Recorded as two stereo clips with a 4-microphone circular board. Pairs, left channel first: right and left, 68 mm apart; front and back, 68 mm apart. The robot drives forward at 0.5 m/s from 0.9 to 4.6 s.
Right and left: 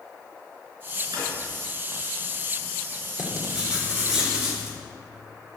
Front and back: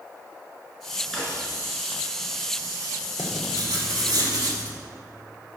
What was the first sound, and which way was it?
A drawer, 85° left.